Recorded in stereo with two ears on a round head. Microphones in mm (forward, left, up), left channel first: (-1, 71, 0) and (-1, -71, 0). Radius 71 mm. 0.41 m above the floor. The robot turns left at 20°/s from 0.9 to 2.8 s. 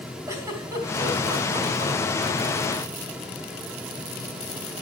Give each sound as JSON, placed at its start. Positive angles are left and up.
{"t": 0.3, "sound": "a giggle", "side_deg": -20, "distance_m": 4.0}